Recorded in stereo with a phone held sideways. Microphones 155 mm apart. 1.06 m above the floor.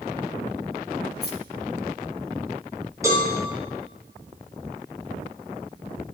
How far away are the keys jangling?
About 1.2 m.